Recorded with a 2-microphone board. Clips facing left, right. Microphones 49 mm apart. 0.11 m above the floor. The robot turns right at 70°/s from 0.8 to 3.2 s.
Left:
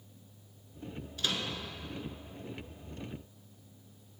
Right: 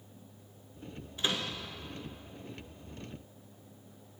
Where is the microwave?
25° right (ahead or behind), 0.9 m; by 1.6 s 30° right (ahead or behind), 0.9 m.